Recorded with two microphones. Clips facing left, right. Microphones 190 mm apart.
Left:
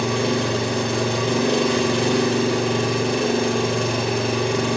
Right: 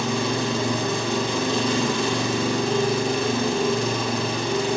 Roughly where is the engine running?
Left.